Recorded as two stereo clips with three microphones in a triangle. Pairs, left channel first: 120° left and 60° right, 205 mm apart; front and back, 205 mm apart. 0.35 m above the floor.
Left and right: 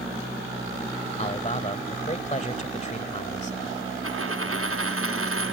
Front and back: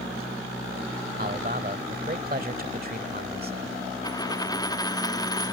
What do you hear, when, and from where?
1.2 s a man speaking: 160° left
4.0 s a dropped coin: 75° right